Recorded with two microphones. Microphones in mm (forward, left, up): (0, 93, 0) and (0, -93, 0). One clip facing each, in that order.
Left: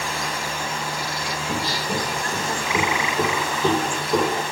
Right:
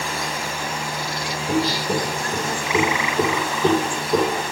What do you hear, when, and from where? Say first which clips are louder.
1.5 s footsteps: right 7 dB; 35° right (ahead or behind), 3.5 m; by 4.4 s 5° right (ahead or behind), 3.5 m